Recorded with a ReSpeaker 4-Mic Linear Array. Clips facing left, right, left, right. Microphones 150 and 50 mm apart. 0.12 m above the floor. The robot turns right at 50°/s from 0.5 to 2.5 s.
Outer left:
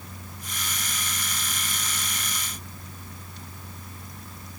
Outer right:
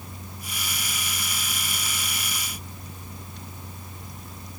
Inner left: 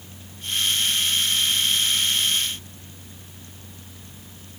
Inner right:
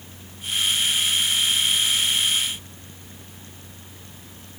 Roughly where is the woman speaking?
I don't hear a woman speaking.